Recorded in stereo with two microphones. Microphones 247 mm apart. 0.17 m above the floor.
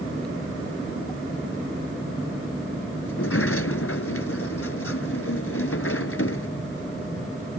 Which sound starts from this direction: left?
A sliding door, at 3.1 s.